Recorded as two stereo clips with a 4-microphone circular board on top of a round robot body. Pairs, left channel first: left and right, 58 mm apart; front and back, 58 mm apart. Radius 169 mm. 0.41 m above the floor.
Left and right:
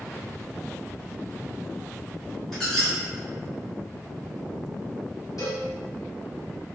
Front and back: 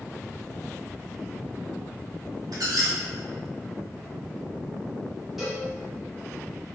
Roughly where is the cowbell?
Left.